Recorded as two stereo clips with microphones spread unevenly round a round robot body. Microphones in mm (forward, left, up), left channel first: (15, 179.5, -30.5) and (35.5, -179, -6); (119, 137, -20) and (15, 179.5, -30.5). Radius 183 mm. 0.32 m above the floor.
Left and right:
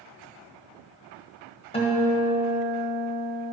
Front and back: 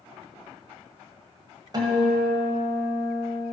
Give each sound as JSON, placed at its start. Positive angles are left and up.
{"t": 1.7, "sound": "a guitar", "azimuth_deg": 155, "distance_m": 1.5}